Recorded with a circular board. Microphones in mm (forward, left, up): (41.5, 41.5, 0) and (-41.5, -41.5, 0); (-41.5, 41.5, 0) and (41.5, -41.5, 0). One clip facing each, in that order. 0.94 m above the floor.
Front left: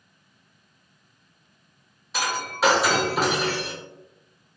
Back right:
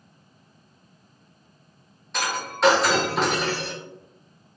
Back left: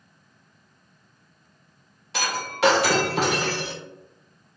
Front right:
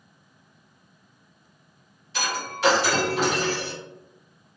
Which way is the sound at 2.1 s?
130° left.